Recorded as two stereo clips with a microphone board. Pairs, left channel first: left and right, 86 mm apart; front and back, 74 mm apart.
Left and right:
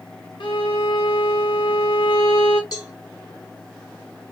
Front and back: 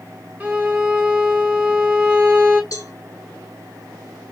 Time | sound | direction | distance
0.4 | a violin | 110° left | 0.8 m
2.7 | a cowbell | 5° right | 1.5 m